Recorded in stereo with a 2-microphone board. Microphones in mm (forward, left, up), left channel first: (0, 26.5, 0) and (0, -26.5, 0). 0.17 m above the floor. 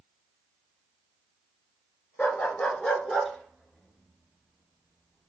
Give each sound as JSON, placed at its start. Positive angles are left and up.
{"t": 2.2, "sound": "a dog barking", "side_deg": 30, "distance_m": 0.8}